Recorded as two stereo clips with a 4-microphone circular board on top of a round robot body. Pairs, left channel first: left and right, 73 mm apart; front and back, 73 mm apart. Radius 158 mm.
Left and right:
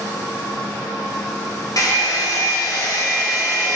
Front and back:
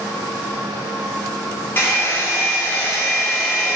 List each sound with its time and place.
1.8 s a hair dryer: 60° left, 1.2 m